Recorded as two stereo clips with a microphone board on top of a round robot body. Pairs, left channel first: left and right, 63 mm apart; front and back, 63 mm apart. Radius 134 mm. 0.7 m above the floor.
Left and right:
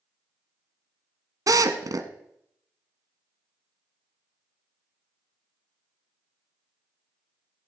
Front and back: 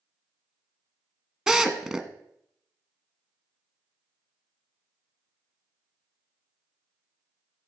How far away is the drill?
About 1.1 m.